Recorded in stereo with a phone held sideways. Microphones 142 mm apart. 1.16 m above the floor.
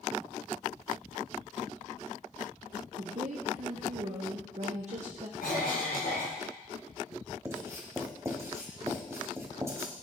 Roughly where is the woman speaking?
Right.